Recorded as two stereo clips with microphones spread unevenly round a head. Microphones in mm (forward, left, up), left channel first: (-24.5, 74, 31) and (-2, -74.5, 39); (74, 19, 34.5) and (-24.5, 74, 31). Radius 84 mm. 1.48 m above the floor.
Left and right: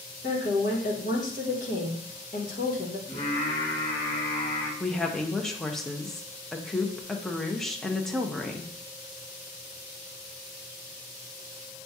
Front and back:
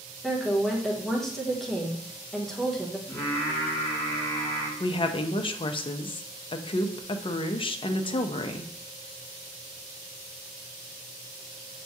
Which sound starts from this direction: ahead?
A woman speaking, at 4.8 s.